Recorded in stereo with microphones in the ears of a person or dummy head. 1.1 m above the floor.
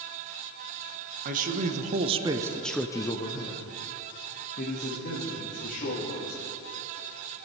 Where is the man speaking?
40° right (ahead or behind), 1.1 m; by 6.4 s 45° left (ahead or behind), 3 m.